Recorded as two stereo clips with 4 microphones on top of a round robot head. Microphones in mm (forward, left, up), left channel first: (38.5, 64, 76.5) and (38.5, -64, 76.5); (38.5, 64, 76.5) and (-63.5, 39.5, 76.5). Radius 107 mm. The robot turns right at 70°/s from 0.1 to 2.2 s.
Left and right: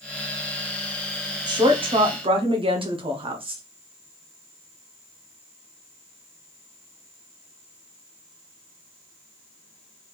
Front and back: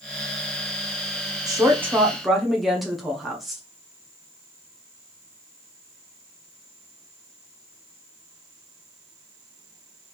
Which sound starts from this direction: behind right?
A woman speaking, at 1.5 s.